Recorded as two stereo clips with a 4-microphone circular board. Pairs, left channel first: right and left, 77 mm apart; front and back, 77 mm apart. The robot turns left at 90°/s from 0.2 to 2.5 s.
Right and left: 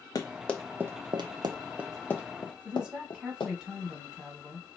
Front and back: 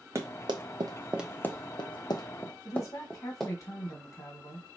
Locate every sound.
0.1 s running footsteps: 130° right, 0.8 m; by 3.5 s 85° right, 1.3 m
2.6 s a woman speaking: 15° left, 1.6 m